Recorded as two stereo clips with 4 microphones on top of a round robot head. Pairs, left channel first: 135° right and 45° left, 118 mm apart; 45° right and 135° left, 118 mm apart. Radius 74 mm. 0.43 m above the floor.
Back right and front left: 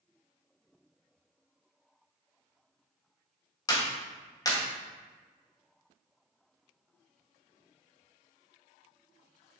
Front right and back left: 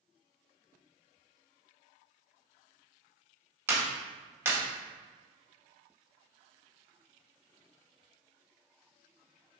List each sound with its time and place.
3.7 s a clap: 170° right, 1.3 m